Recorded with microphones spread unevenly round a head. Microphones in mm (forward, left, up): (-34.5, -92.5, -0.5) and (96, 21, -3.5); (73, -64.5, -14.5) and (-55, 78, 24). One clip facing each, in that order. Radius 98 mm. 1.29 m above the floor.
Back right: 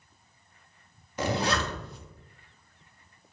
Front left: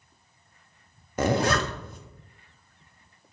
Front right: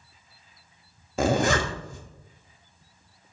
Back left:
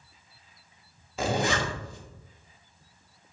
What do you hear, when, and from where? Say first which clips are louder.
1.2 s a zipper: front left 4 dB, front right 5 dB; 5° right, 0.6 m